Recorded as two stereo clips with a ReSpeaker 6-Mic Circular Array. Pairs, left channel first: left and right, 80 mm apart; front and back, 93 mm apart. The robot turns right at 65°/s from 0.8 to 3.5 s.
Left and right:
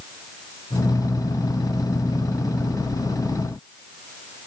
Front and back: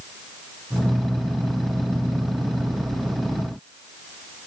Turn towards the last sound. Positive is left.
No sound to turn to.